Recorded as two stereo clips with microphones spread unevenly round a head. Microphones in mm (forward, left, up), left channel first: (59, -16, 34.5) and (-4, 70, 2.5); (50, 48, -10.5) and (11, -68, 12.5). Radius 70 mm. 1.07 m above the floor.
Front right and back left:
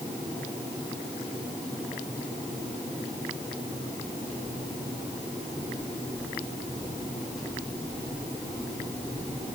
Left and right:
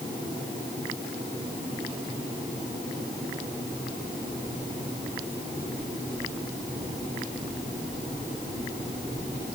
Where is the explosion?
No explosion in this recording.